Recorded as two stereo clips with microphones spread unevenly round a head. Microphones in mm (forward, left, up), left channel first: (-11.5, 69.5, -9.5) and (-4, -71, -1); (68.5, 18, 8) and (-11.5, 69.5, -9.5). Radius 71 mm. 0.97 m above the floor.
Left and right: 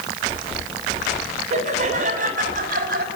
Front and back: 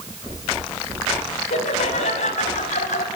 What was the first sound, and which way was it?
Laughter, 40° right.